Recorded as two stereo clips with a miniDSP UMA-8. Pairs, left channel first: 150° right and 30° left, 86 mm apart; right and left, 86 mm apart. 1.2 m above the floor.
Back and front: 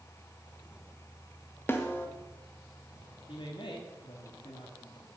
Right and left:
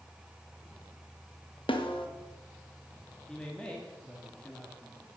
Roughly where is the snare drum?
Right.